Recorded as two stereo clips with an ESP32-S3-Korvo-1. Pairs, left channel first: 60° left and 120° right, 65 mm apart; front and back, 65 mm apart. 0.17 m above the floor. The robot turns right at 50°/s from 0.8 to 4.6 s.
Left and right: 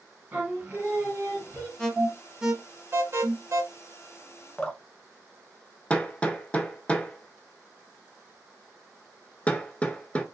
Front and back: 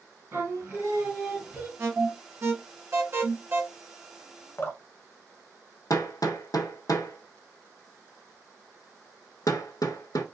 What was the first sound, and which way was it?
Singing, 160° right.